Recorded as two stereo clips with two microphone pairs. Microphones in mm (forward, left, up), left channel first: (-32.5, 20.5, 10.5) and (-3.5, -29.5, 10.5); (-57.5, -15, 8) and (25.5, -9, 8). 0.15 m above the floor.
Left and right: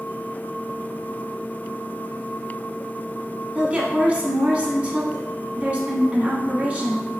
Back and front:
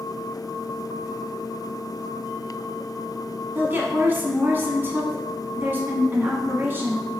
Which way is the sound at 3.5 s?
25° right.